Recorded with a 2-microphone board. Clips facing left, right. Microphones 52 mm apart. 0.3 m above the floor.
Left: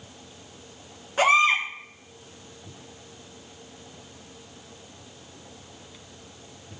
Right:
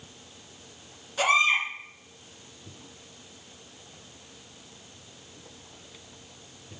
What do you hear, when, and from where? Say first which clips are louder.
1.2 s a baby crying: left 3 dB; 40° left (ahead or behind), 3 m